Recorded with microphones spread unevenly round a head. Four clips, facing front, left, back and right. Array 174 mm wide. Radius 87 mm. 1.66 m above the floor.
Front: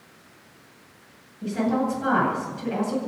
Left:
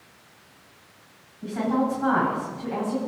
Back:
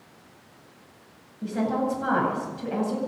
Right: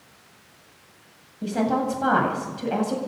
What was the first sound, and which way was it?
A woman speaking, 105° right.